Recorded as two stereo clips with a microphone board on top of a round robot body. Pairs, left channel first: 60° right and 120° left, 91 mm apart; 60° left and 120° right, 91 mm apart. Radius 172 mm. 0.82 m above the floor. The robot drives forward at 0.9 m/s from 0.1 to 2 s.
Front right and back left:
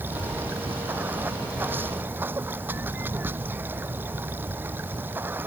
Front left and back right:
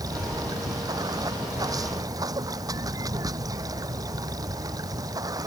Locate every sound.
0.0 s running water: 170° right